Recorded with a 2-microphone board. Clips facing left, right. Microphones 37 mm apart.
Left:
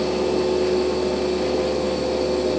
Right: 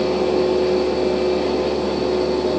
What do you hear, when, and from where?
Only background noise.